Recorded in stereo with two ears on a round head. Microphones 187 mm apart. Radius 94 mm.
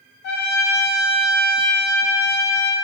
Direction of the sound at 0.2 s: 50° left (ahead or behind).